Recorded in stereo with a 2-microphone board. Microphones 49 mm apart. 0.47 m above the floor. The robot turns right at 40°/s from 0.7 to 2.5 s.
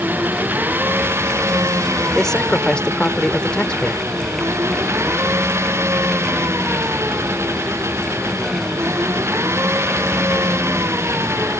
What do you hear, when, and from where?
0.0 s an engine running: 140° right; by 11.6 s 65° right
2.1 s a man speaking: 5° left (ahead or behind); by 4.1 s 15° left (ahead or behind)